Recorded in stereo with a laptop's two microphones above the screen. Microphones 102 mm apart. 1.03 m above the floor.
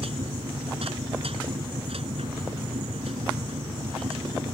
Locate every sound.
0.0 s a machine running: 80° right